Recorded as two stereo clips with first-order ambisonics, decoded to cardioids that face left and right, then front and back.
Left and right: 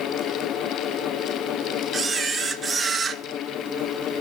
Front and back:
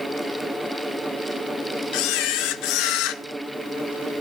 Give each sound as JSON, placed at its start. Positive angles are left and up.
{"t": 1.9, "sound": "a camera shutter", "azimuth_deg": -10, "distance_m": 0.6}